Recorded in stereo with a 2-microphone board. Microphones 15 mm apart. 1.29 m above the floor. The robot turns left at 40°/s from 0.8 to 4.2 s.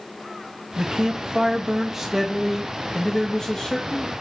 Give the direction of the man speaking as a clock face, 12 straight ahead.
4 o'clock.